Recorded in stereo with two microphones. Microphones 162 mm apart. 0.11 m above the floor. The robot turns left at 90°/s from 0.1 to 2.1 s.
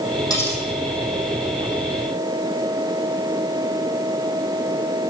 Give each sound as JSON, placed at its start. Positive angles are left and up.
{"t": 0.3, "sound": "cutlery clinking", "side_deg": 25, "distance_m": 3.0}